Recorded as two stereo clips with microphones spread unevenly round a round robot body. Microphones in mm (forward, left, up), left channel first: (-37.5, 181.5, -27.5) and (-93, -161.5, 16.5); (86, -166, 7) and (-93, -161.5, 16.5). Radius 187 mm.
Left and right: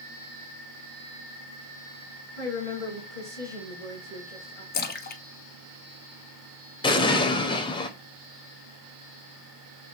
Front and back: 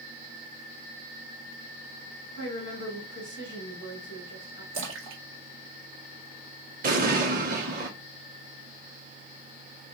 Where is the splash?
150° left, 0.6 m.